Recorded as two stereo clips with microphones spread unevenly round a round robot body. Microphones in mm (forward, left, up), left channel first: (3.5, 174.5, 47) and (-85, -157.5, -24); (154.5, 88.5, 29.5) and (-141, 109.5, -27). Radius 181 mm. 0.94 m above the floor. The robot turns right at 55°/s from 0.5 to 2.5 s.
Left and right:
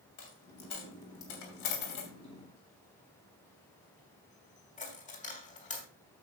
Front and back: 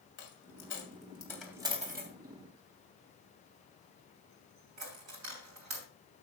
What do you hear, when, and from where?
0.2 s a dropped coin: 35° left, 3 m; by 5.9 s 145° left, 3 m